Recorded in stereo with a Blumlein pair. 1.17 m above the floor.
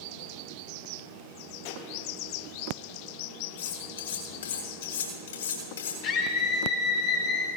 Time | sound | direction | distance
1.6 | a pop | 50° left | 3 m
3.6 | cutlery clinking | 65° left | 5.5 m
6.0 | a scream | 45° left | 2 m